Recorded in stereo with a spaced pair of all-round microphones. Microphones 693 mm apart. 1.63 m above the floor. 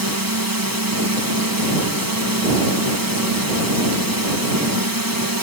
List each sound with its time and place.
0.0 s a drone: 30° right (ahead or behind)